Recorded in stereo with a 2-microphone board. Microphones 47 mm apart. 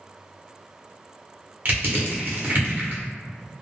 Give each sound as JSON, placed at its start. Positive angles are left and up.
{"t": 1.6, "sound": "crushing", "side_deg": -45, "distance_m": 0.8}